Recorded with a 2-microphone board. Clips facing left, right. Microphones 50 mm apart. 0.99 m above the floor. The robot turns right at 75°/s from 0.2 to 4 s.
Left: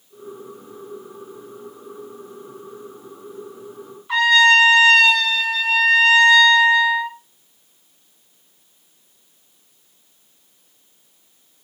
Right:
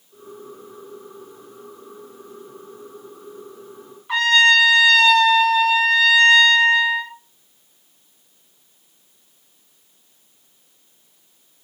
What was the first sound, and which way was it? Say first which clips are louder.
A trumpet: left 1 dB; 10° right (ahead or behind).